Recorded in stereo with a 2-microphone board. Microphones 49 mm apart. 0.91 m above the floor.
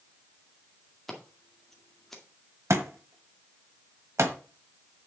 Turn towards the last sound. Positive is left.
turn(degrees=-70)  # may be behind; listen again after turning